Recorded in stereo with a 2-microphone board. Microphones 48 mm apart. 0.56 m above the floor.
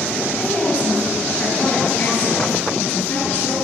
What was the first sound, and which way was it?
A woman speaking, 35° left (ahead or behind).